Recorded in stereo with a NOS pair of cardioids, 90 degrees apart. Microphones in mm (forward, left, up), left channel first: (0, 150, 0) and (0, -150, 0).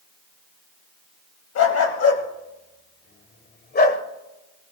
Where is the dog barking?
55° left, 3 m; by 4.0 s 30° left, 2.0 m.